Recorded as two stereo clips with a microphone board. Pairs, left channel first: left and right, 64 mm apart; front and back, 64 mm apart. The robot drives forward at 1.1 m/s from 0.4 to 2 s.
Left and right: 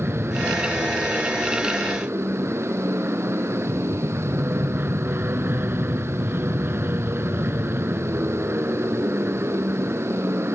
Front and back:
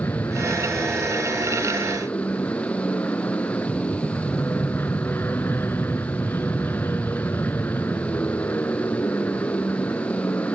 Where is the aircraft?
40° right; by 10.6 s 45° right.